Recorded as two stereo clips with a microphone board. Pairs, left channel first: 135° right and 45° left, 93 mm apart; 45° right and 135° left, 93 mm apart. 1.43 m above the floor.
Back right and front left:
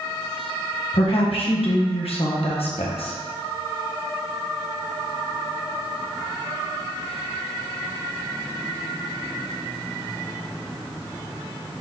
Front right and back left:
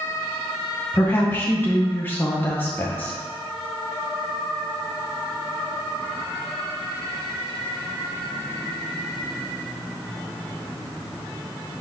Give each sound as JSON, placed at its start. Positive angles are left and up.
{"t": 0.9, "sound": "a woman speaking", "azimuth_deg": -115, "distance_m": 1.3}